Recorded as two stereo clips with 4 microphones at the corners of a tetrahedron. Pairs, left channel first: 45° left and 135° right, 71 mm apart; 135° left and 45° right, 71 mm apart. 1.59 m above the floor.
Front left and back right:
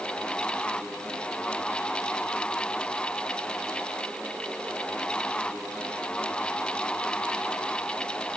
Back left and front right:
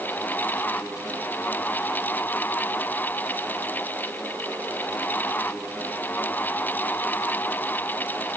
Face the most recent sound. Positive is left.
No sound to turn to.